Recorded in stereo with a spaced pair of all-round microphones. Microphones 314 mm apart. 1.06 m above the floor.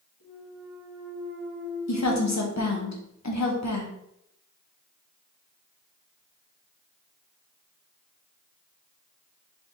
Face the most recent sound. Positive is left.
turn(degrees=60)  # may be behind; listen again after turning